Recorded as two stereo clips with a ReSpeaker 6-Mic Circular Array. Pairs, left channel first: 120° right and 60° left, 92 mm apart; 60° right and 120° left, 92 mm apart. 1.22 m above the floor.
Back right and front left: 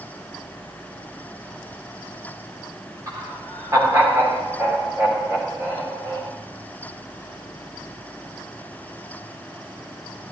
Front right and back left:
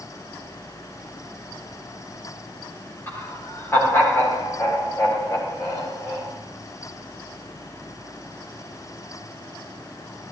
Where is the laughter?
5° left, 3.5 m; by 6.3 s 5° right, 5 m.